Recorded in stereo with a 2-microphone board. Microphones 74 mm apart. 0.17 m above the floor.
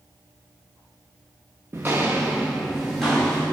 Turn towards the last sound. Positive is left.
turn(degrees=10)  # may be behind; listen again after turning